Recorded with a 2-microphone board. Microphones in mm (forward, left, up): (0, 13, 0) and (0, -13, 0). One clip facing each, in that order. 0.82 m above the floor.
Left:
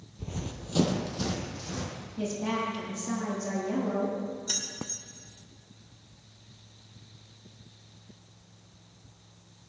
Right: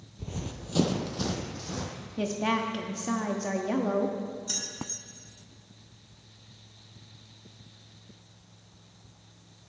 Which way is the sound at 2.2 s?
50° right (ahead or behind).